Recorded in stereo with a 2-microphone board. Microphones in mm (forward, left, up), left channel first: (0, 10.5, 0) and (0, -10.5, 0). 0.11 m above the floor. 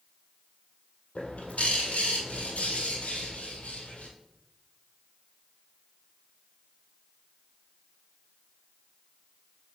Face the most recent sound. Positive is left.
turn(degrees=65)  # may be behind; listen again after turning